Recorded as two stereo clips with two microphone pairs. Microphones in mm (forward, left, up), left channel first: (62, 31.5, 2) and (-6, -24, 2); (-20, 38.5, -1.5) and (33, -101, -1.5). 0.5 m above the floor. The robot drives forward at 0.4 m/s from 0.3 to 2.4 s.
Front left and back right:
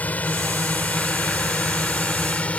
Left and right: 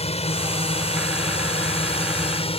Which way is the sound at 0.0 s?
105° left.